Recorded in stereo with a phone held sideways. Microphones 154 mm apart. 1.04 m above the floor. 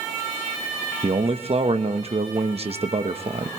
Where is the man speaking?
45° right (ahead or behind), 1.0 m.